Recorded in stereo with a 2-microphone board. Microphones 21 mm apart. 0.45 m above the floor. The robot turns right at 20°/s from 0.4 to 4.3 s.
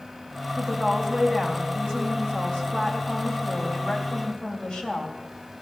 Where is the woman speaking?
40° left, 2.5 m; by 5.2 s 115° left, 2.5 m.